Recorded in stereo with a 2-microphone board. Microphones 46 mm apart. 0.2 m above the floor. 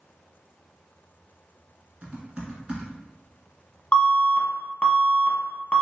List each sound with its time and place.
2.0 s typing on a keyboard: 25° right (ahead or behind), 1.1 m
3.9 s an alarm: 35° left (ahead or behind), 0.8 m